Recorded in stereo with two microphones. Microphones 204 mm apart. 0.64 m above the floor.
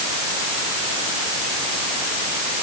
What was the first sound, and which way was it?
Only background noise.